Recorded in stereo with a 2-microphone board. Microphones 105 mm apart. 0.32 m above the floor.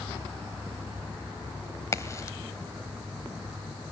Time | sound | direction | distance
1.9 | a crack | 30° left (ahead or behind) | 1.5 m